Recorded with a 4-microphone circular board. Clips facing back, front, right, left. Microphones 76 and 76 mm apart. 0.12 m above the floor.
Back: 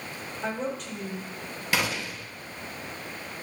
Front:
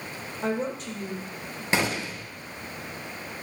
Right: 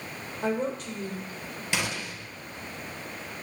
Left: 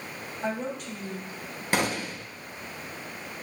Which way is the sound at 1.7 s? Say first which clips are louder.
Front 2 dB, left 5 dB; 55° left.